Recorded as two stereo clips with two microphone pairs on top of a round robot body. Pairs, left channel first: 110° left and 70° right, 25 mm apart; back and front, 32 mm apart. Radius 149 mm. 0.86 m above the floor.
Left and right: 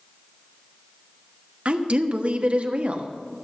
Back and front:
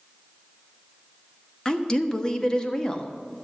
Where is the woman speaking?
110° right, 1.4 m.